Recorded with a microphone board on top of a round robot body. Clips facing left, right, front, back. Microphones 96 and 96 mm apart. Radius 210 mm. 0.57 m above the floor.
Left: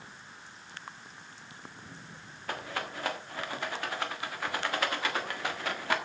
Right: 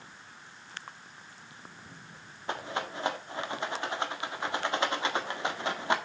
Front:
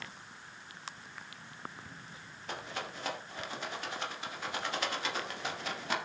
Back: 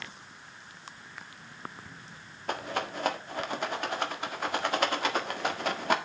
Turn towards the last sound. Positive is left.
turn(degrees=-155)